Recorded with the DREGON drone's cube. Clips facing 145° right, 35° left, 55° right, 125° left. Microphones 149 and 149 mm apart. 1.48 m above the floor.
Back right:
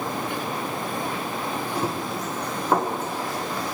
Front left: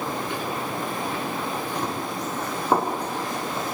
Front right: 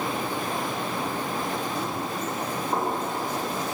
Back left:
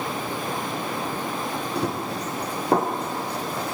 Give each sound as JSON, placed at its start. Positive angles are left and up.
{"t": 1.8, "sound": "running footsteps", "azimuth_deg": 135, "distance_m": 4.0}